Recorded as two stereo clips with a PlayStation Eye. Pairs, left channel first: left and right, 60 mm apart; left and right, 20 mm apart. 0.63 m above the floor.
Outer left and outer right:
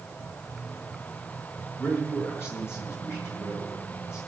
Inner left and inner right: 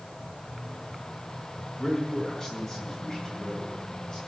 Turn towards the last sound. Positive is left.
turn(degrees=50)  # may be behind; listen again after turning